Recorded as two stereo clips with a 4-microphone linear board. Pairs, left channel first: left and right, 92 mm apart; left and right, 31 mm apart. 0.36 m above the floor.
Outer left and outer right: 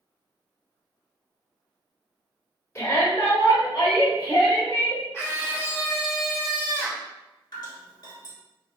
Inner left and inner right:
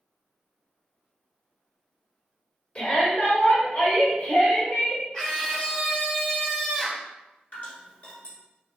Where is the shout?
30° left (ahead or behind), 1.1 m; by 5.0 s 60° left (ahead or behind), 1.7 m.